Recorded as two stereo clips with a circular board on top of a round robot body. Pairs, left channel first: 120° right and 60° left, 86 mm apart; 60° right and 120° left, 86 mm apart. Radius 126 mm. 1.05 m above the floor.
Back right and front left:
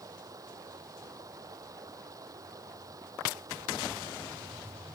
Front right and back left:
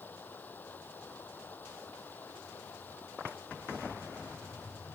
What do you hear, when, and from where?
0.0 s running water: 10° left